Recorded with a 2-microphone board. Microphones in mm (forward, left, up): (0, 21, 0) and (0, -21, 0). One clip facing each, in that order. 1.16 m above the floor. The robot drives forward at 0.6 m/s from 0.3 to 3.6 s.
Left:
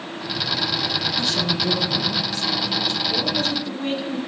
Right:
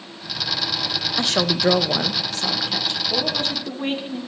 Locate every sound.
1.2 s a woman speaking: 50° right (ahead or behind), 0.7 m; by 3.0 s 40° right (ahead or behind), 0.9 m
3.1 s a woman speaking: 30° right (ahead or behind), 1.7 m; by 4.2 s 25° right (ahead or behind), 2.0 m